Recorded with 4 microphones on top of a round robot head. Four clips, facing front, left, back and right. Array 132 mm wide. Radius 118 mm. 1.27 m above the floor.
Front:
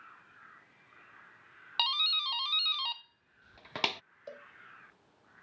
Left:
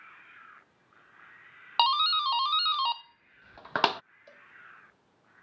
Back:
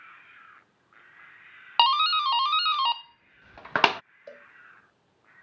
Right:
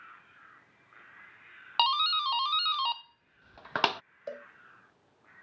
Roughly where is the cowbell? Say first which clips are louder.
Right 15 dB, even; right.